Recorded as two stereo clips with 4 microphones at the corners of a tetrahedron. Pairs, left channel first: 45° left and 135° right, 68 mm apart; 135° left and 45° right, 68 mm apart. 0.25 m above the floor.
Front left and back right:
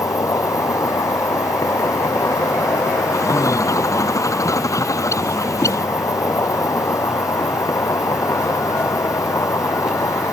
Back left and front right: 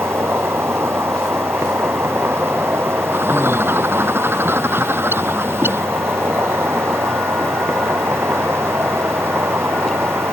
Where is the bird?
10° left.